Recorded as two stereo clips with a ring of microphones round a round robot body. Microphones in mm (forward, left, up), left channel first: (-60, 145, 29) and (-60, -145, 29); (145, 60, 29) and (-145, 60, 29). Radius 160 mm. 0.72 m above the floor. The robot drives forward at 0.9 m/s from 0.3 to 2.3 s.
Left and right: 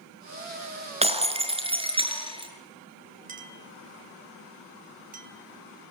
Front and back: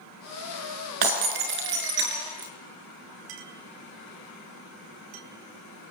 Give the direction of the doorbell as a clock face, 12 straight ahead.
No doorbell in this recording.